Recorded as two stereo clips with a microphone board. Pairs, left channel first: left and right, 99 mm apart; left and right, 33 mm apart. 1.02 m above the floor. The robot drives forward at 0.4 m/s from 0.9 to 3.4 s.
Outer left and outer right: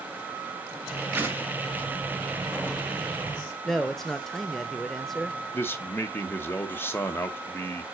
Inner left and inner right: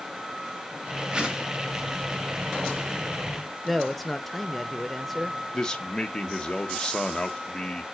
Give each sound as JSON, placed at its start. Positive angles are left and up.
{"t": 1.1, "sound": "a whoosh", "side_deg": -20, "distance_m": 1.2}
{"t": 3.6, "sound": "a man speaking", "side_deg": 5, "distance_m": 0.8}
{"t": 5.5, "sound": "a man speaking", "side_deg": 25, "distance_m": 0.9}